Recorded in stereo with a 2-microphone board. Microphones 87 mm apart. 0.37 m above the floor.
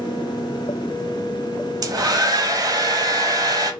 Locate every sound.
1.8 s a hair dryer: 45° right (ahead or behind), 0.7 m